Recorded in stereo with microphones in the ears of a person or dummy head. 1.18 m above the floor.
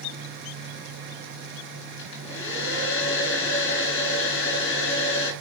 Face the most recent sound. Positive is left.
turn(degrees=65)  # may be behind; listen again after turning